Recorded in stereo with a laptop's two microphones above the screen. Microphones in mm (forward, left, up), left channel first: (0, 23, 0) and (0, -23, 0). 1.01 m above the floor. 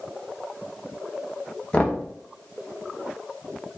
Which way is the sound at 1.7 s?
25° left (ahead or behind).